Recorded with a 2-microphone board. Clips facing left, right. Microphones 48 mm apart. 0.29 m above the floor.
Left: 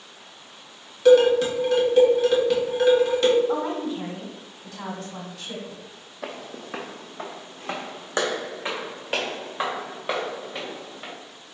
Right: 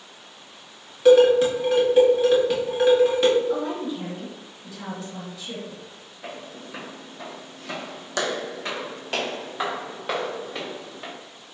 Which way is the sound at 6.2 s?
75° left (ahead or behind).